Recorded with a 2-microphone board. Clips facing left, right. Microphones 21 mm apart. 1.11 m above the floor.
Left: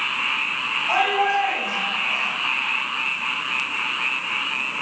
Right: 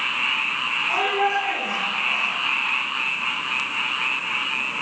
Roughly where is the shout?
Left.